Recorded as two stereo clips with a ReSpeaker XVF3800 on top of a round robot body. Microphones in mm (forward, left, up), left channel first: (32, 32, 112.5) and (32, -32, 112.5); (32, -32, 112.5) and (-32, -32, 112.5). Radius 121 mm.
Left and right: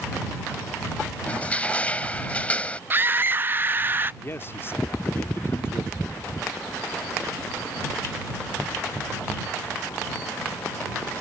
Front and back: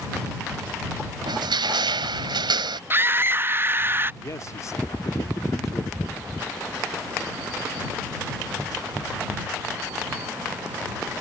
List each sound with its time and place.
1.3 s crushing: 165° left
2.9 s a scream: 135° right
4.2 s a man speaking: 40° left